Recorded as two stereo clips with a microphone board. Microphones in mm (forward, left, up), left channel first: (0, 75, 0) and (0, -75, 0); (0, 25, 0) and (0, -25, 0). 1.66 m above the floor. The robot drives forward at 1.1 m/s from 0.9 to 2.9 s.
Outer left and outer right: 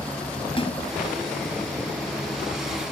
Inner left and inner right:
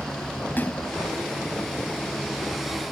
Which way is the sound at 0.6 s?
40° left (ahead or behind).